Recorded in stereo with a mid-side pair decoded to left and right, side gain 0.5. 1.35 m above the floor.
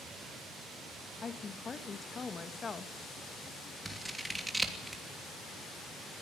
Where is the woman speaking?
35° left, 1.8 m.